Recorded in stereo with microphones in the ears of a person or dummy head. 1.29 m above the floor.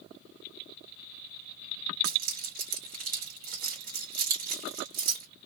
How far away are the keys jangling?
About 1.8 m.